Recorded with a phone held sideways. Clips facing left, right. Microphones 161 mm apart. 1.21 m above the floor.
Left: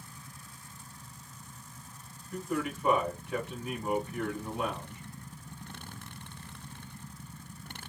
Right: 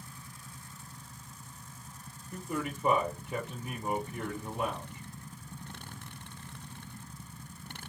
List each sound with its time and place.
2.3 s a man speaking: 15° right (ahead or behind), 1.4 m